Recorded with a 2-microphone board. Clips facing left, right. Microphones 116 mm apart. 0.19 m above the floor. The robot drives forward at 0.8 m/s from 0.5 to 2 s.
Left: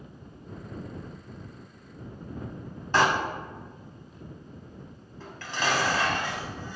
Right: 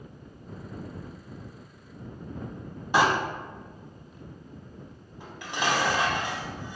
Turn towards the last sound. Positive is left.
turn(degrees=-15)  # may be behind; listen again after turning